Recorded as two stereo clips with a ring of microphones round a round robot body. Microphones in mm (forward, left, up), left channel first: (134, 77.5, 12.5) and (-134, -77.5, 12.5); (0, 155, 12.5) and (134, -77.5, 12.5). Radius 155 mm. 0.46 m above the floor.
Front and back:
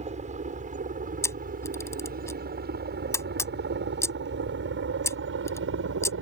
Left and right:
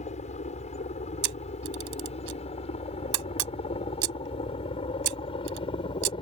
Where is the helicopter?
160° left; by 6.2 s 175° right.